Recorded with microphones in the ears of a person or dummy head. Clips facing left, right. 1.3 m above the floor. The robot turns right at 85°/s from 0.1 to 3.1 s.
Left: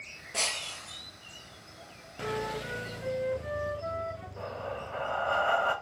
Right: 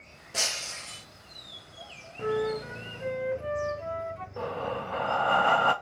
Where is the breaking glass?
170° right, 0.6 m; by 1.1 s 110° right, 0.6 m.